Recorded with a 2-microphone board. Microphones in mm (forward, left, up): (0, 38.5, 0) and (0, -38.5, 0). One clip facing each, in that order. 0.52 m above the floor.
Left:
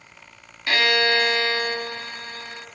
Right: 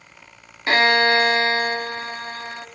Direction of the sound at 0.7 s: 35° right (ahead or behind).